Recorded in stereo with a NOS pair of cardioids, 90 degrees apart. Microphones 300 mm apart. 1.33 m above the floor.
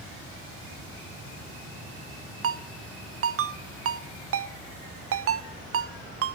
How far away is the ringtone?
About 0.7 m.